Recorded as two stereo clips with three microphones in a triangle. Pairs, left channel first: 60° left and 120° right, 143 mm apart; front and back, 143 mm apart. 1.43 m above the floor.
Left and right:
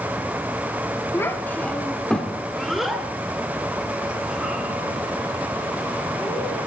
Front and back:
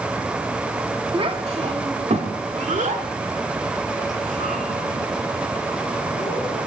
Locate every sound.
1.1 s a child speaking: 130° left, 1.6 m; by 6.6 s 160° left, 6 m